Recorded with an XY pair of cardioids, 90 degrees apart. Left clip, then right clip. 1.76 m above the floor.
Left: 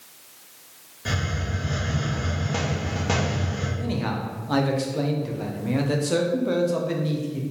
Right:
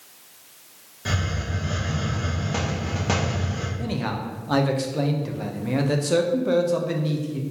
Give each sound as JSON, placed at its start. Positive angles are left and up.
{"t": 1.1, "sound": "a hiss", "azimuth_deg": -15, "distance_m": 1.3}
{"t": 3.8, "sound": "a man speaking", "azimuth_deg": -20, "distance_m": 0.7}